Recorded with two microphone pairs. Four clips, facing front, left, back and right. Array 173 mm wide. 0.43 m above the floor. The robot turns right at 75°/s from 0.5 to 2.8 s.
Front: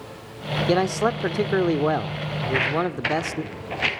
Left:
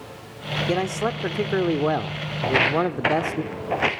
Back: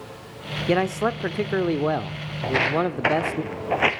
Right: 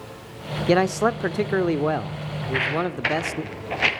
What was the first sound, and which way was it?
A man speaking, 55° right.